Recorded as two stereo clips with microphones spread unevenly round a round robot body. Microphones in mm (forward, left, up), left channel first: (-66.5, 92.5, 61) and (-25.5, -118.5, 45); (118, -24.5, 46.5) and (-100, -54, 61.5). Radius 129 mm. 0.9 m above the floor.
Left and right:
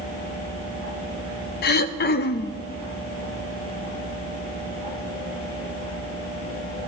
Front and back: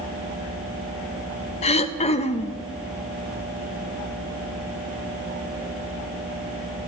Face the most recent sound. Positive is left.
turn(degrees=60)